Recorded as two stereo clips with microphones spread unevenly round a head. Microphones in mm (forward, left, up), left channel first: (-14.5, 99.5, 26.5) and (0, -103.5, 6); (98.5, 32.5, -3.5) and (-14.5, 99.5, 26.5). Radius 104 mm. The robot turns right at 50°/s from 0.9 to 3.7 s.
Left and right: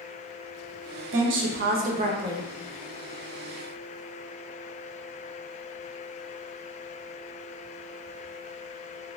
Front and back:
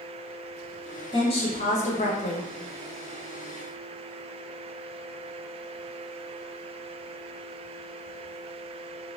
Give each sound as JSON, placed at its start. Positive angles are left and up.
{"t": 1.1, "sound": "a woman speaking", "azimuth_deg": -80, "distance_m": 0.6}